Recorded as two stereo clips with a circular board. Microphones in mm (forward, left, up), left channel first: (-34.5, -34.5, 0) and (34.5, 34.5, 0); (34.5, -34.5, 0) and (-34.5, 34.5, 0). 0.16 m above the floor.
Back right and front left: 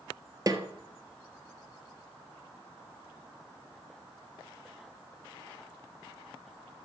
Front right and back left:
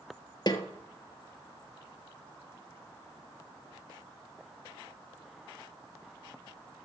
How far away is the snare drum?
About 1.3 m.